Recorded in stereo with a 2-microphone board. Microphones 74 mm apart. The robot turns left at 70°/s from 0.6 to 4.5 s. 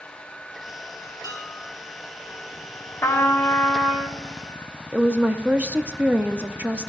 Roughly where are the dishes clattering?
Ahead left.